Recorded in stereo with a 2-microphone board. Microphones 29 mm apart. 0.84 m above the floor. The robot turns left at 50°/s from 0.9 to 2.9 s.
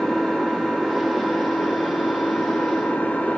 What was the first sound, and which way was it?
An engine running, 155° left.